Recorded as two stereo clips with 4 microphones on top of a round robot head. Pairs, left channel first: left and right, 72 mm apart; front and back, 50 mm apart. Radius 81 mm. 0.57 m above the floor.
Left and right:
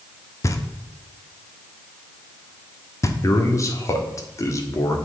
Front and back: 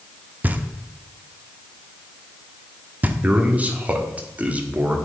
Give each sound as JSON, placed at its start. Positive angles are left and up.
{"t": 0.4, "sound": "knocking", "azimuth_deg": 130, "distance_m": 1.0}
{"t": 3.2, "sound": "a man speaking", "azimuth_deg": 125, "distance_m": 1.7}